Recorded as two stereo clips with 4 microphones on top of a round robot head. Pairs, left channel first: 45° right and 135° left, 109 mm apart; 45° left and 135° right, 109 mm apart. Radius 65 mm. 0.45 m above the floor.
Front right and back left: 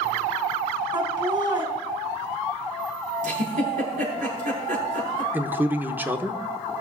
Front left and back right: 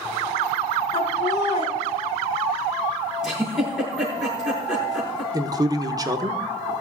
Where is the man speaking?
165° right, 1.0 m.